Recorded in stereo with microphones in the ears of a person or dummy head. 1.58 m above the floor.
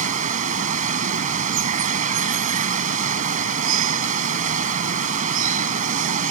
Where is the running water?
40° right (ahead or behind).